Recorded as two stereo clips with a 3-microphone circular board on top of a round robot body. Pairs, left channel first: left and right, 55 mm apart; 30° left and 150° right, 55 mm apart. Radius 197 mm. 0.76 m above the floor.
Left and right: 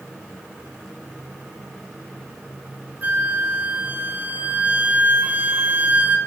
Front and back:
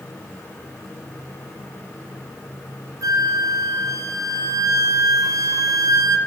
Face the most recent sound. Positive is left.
turn(degrees=-150)